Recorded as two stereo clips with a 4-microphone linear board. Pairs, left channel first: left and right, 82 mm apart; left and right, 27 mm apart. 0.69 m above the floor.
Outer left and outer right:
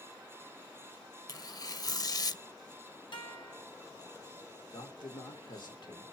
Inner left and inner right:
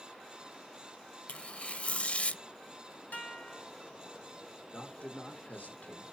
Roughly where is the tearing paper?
Left.